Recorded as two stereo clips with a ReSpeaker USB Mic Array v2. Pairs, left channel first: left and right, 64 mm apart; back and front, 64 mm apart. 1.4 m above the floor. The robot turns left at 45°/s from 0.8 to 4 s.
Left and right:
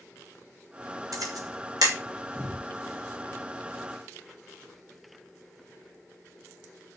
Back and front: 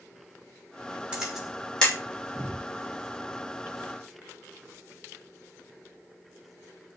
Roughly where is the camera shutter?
Right.